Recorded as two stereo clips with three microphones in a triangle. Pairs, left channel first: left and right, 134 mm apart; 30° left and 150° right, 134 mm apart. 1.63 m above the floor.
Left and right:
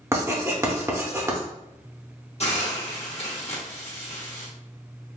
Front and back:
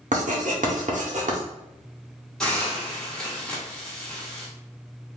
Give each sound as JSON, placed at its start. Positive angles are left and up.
{"t": 0.1, "sound": "writing", "azimuth_deg": -160, "distance_m": 0.7}
{"t": 2.4, "sound": "a hiss", "azimuth_deg": 110, "distance_m": 1.0}